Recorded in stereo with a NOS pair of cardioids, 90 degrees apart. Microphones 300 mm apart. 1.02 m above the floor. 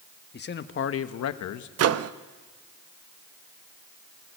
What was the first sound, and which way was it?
A man speaking, 35° left.